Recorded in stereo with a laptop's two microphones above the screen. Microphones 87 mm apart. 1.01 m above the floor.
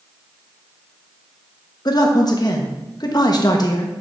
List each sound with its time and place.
1.9 s a man speaking: 50° left (ahead or behind), 1.0 m